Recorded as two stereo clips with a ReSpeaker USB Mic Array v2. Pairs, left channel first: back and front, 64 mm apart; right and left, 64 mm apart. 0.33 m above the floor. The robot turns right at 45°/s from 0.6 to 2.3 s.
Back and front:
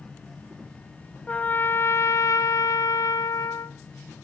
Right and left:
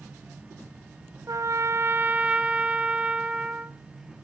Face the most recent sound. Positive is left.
turn(degrees=160)